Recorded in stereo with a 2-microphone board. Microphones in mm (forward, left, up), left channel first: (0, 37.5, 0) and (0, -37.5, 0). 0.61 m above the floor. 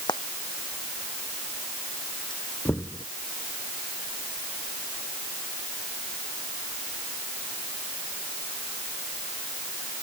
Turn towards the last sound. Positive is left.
turn(degrees=35)  # may be behind; listen again after turning